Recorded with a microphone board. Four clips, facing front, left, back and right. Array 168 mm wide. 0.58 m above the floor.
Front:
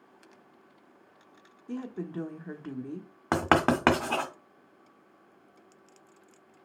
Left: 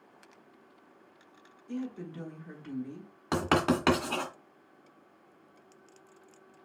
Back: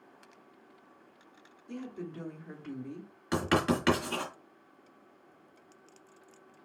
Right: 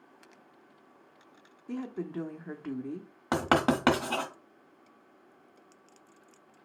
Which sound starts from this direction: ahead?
Writing, at 3.3 s.